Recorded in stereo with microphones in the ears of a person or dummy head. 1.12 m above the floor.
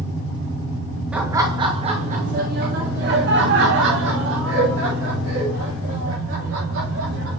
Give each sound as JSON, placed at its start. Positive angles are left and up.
{"t": 1.1, "sound": "laughter", "side_deg": -5, "distance_m": 0.9}